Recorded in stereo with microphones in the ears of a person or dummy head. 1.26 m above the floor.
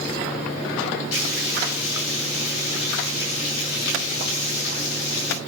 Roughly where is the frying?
Left.